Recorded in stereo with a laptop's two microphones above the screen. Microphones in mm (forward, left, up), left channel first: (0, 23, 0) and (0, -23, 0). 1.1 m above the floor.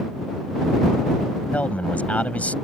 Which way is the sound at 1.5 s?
30° left (ahead or behind).